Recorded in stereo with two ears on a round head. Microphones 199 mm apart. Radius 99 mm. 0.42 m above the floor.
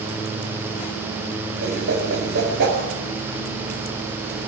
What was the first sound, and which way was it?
A whoosh, 50° right (ahead or behind).